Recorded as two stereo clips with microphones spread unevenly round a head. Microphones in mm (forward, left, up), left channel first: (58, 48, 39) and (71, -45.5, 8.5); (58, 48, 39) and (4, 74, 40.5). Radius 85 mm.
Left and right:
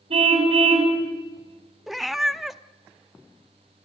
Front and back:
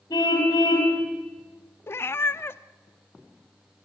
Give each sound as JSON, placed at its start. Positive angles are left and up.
{"t": 0.1, "sound": "a car horn", "azimuth_deg": -70, "distance_m": 4.5}
{"t": 1.9, "sound": "a cat meowing", "azimuth_deg": 15, "distance_m": 0.7}